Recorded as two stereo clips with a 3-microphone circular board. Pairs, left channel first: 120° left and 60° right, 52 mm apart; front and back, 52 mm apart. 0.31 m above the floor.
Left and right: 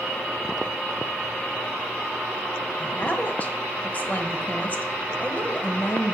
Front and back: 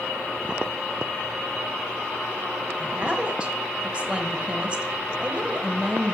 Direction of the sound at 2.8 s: 135° left.